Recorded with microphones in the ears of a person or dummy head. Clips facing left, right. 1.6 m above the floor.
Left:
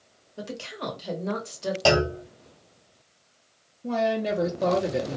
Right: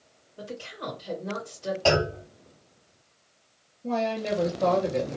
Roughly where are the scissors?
I don't hear scissors.